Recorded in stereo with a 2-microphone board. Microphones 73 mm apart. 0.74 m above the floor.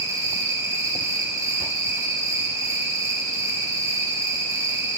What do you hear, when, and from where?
0.0 s an insect: 50° right (ahead or behind), 9 m